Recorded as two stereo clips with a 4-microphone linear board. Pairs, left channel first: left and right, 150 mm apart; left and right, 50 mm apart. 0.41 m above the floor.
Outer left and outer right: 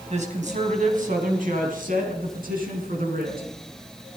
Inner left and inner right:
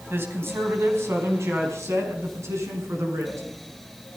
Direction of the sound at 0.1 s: 50° right (ahead or behind).